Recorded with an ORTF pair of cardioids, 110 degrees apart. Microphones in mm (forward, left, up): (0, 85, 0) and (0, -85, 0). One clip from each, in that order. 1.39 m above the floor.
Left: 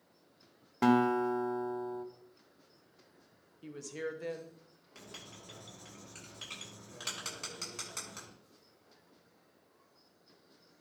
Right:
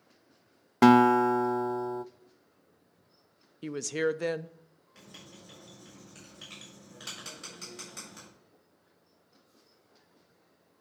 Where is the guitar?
45° right, 0.5 m.